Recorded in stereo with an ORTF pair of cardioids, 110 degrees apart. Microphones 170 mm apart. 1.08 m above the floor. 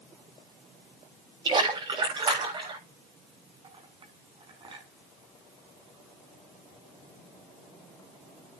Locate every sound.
1.4 s a splash: 30° right, 8 m
3.6 s a clink: 30° right, 5.5 m